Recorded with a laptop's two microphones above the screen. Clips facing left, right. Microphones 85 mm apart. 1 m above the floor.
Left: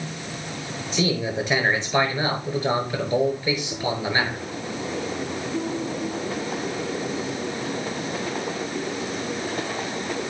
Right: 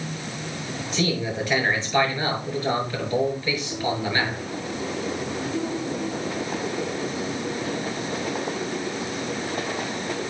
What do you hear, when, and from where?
0.9 s a man speaking: 20° left (ahead or behind), 4.5 m